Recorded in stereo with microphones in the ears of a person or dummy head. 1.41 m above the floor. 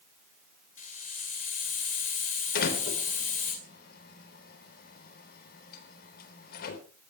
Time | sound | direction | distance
0.8 | a hiss | 45° left (ahead or behind) | 2.5 m
2.5 | a door slam | 60° left (ahead or behind) | 4 m